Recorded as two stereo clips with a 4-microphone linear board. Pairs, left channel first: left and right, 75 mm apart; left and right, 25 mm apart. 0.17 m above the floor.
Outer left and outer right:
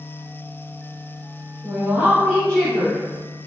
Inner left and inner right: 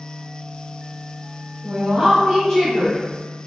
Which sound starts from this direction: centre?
A woman speaking, at 1.6 s.